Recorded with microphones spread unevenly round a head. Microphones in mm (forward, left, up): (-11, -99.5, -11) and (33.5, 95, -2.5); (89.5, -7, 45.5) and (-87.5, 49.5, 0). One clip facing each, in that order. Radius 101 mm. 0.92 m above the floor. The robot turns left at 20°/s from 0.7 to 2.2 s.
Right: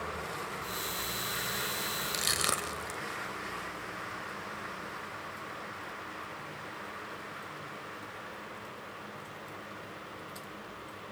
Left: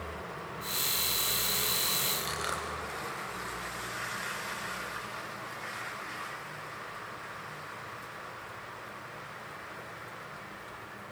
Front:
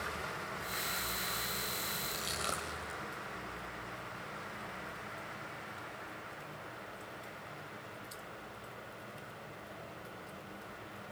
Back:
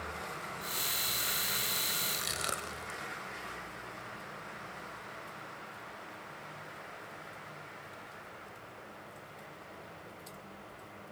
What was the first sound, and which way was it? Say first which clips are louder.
Crushing: right 1 dB, front 1 dB; 125° right.